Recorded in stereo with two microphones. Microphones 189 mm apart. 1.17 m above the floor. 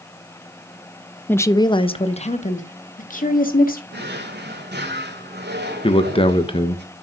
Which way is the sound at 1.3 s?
10° left (ahead or behind).